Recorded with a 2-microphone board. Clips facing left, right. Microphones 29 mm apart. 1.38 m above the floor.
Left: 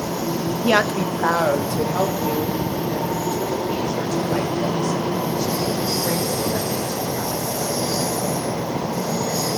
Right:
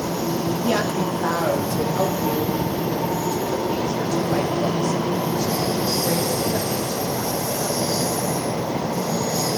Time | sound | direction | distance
0.6 | a woman speaking | 55° left (ahead or behind) | 0.6 m